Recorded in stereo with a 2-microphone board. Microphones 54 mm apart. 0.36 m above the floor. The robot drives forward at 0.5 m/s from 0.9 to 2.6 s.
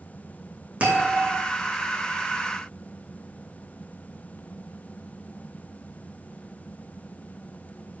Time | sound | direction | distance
0.8 | a bell | 25° right (ahead or behind) | 6.5 m